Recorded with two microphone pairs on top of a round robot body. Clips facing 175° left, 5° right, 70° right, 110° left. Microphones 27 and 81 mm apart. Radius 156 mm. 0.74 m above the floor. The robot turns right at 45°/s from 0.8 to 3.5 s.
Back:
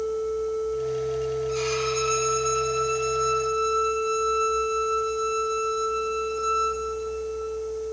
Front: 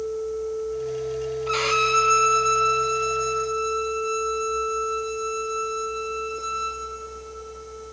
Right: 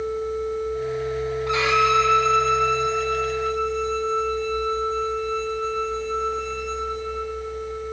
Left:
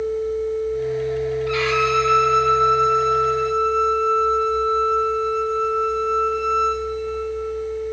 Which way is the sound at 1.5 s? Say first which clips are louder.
Front 5 dB, right 2 dB; straight ahead.